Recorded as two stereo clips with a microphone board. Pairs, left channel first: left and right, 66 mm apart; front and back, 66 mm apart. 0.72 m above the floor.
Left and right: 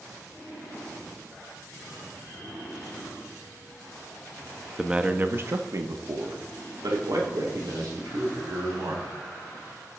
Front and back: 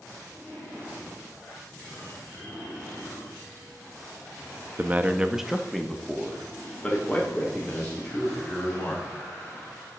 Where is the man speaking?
165° right, 0.6 m; by 9.1 s 70° right, 2.5 m.